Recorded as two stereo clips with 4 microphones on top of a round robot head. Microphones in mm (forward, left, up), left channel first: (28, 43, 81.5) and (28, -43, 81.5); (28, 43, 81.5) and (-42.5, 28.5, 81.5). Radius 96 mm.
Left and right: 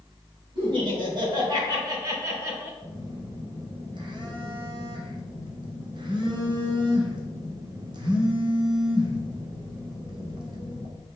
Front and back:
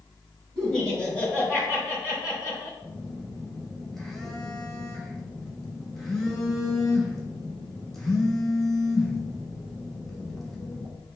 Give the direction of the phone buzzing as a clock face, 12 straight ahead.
3 o'clock.